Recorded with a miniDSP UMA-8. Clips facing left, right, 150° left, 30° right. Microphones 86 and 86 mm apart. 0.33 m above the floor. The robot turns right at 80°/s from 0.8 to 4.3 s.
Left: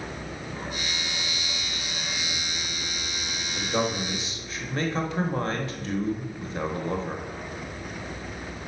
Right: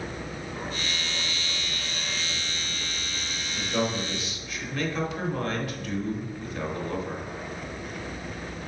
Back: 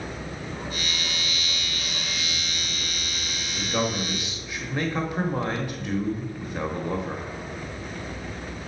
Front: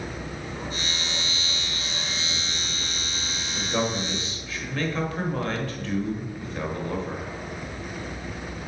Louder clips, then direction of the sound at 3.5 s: Left 1 dB, even; 35° left.